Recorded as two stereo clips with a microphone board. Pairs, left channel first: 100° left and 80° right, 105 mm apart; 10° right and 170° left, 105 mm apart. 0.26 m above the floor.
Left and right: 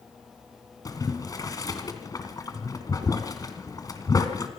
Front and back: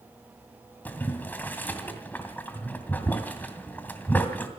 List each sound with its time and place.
0.8 s boiling: 55° left, 2 m